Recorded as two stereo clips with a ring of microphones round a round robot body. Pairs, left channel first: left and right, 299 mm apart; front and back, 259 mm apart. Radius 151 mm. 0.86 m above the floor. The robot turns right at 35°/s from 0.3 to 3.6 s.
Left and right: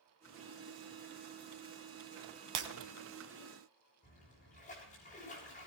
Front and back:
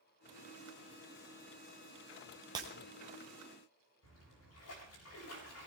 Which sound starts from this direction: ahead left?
A splash, at 4.0 s.